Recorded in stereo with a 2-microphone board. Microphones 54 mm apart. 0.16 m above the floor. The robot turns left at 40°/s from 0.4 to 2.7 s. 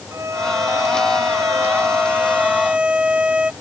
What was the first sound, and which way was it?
A violin, 70° right.